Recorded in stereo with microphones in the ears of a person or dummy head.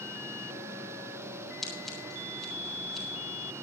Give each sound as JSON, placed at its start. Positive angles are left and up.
{"t": 1.6, "sound": "scissors", "side_deg": 0, "distance_m": 4.0}